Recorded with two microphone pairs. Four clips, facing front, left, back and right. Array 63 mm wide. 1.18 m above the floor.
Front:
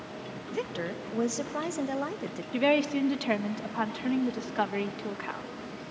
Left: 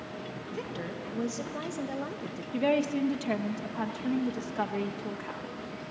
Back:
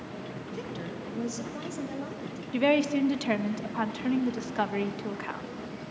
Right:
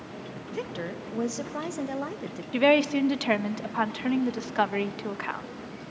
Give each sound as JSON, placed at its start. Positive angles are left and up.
{"t": 0.5, "sound": "a woman speaking", "azimuth_deg": -40, "distance_m": 1.4}
{"t": 2.5, "sound": "a woman speaking", "azimuth_deg": -90, "distance_m": 0.9}